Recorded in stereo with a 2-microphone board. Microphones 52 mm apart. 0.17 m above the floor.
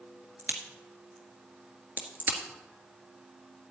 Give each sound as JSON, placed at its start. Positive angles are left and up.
{"t": 0.4, "sound": "a crack", "side_deg": -40, "distance_m": 1.6}